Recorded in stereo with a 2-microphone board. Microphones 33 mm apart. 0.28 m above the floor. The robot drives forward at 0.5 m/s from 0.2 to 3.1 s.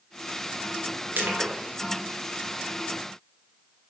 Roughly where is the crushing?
Right.